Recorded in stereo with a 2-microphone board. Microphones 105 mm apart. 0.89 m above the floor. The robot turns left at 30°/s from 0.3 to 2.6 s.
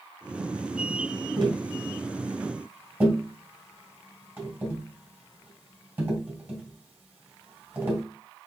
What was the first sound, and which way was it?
Tapping, 55° right (ahead or behind).